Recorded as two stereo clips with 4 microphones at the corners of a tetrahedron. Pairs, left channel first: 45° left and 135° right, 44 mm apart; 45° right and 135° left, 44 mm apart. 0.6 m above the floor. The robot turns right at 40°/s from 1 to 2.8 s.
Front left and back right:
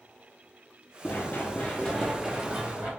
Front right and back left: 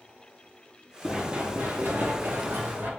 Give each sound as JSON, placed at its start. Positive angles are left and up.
{"t": 1.0, "sound": "running footsteps", "azimuth_deg": 60, "distance_m": 0.9}